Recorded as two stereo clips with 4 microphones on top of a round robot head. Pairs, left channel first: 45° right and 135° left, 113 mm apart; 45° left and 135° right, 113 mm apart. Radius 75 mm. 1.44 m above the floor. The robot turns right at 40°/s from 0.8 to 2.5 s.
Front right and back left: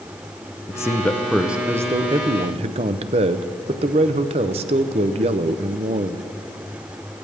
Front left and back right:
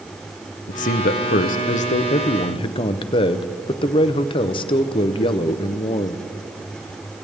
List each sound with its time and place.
0.7 s a man speaking: 25° left, 0.6 m; by 6.2 s 90° left, 0.6 m